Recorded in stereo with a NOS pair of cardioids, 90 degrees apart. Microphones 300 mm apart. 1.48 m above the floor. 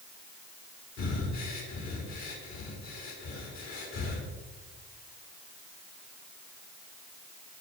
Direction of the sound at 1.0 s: 65° left.